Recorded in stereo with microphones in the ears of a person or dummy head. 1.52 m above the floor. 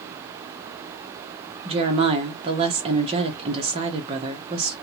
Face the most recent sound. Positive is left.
turn(degrees=-25)  # may be behind; listen again after turning